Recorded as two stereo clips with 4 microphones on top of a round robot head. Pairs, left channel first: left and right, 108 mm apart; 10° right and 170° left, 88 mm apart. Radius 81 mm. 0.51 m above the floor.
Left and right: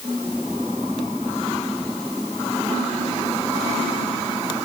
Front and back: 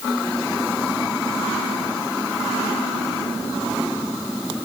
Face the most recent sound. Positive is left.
No sound to turn to.